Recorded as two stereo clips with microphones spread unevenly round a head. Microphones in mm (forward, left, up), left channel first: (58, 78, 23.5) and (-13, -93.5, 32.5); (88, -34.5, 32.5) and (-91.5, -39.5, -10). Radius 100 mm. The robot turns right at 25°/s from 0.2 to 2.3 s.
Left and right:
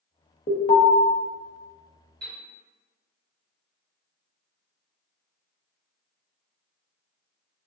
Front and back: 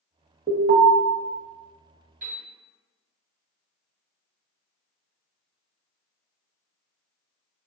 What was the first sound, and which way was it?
An alarm, 120° left.